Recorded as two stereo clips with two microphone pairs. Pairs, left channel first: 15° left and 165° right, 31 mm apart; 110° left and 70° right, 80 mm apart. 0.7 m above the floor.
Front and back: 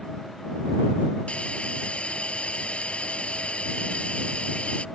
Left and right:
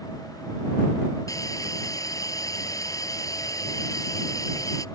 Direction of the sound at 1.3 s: 65° left.